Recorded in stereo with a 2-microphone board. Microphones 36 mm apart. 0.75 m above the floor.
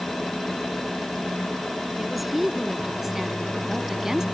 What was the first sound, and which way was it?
A woman speaking, 5° right (ahead or behind).